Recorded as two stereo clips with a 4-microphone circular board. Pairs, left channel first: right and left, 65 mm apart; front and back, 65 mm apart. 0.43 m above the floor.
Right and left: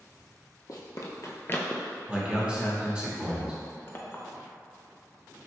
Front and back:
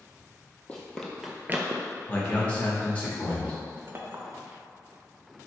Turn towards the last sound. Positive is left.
turn(degrees=-135)